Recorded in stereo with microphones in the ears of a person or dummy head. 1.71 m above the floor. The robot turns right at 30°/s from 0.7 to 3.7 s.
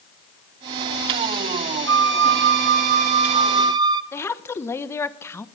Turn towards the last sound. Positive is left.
turn(degrees=15)  # may be behind; listen again after turning